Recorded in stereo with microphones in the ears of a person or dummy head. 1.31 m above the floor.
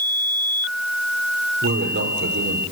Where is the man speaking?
65° right (ahead or behind), 3.5 m.